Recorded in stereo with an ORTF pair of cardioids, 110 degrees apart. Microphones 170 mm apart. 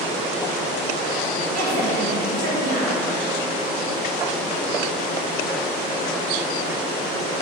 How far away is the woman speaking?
About 3 m.